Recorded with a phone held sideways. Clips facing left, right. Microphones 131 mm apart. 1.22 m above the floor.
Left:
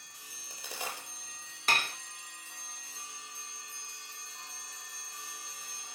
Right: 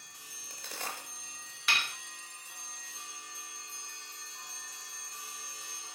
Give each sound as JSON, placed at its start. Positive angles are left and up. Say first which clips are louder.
{"t": 0.3, "sound": "a crack", "louder": "left 1 dB", "side_deg": 10, "distance_m": 5.0}
{"t": 1.7, "sound": "dishes clattering", "louder": "left 3 dB", "side_deg": 40, "distance_m": 0.9}